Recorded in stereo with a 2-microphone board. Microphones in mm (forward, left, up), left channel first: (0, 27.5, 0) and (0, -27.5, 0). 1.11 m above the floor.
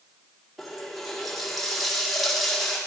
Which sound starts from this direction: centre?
A running tap, at 0.6 s.